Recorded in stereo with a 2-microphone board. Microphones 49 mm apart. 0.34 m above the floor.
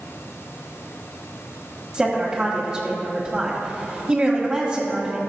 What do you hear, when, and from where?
1.9 s a woman speaking: 15° right (ahead or behind), 1.5 m